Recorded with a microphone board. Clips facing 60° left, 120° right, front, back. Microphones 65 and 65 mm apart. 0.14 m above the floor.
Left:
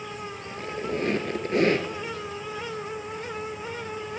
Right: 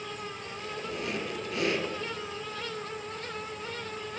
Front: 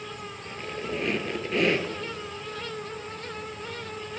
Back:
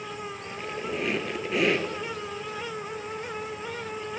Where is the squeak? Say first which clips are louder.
Left 8 dB, front 1 dB; 95° left, 1.2 m.